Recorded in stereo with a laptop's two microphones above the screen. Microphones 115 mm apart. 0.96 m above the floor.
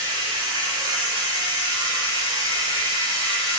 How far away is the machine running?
About 1.0 m.